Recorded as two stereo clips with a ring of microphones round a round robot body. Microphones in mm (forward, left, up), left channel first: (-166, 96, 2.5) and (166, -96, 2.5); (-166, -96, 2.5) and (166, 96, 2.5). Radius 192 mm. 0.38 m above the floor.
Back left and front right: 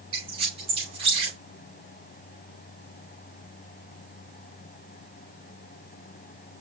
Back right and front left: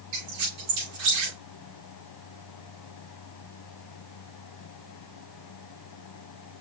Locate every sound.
0.1 s a squeak: 45° left, 5 m